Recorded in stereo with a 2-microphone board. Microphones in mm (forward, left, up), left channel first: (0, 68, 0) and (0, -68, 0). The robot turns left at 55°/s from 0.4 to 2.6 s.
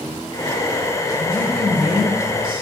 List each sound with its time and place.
1.2 s a woman speaking: 25° left, 2 m; by 2.6 s 50° right, 2 m